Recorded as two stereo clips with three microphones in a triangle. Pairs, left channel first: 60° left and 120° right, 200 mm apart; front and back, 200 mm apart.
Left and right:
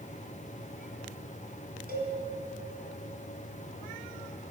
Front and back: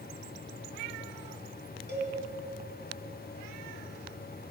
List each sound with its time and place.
1.9 s a cowbell: 155° right, 2.5 m